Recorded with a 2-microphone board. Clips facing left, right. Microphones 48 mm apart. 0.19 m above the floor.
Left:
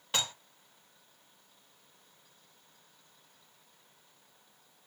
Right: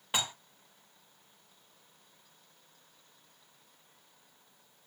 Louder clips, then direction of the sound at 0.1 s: Even; 15° right (ahead or behind).